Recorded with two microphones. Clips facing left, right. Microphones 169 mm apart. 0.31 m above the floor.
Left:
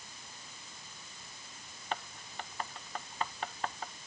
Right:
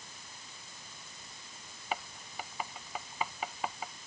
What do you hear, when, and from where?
1.9 s writing: 5° right (ahead or behind)